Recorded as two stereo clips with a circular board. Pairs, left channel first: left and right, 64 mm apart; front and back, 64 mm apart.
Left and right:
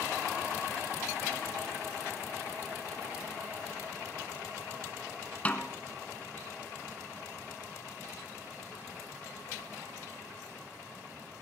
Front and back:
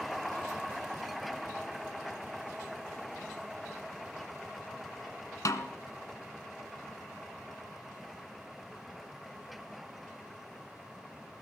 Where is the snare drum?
25° left, 1.1 m.